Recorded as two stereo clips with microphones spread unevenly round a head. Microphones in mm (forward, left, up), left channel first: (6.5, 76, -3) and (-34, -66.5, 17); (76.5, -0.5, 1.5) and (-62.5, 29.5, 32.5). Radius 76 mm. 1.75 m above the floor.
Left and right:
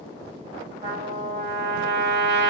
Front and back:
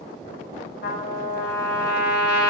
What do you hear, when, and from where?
0.8 s a trumpet: 40° right, 6.5 m